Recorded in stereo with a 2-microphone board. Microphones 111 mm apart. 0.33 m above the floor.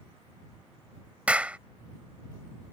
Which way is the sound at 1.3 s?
10° right (ahead or behind).